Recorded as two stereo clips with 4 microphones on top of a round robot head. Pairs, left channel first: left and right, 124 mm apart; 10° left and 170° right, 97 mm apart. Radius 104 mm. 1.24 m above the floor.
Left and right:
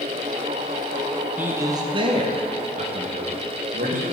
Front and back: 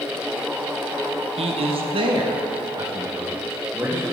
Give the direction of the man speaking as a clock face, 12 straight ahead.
6 o'clock.